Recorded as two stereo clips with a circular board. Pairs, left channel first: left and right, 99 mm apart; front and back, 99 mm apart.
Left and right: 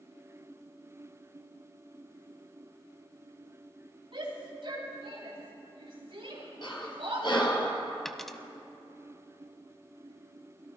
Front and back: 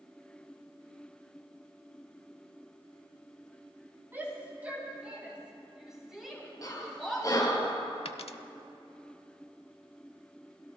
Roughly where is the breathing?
Ahead left.